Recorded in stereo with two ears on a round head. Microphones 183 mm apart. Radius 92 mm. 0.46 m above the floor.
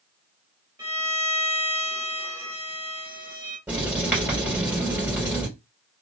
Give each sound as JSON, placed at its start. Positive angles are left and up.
{"t": 0.8, "sound": "a violin", "side_deg": -10, "distance_m": 1.8}
{"t": 3.7, "sound": "writing", "side_deg": -5, "distance_m": 2.5}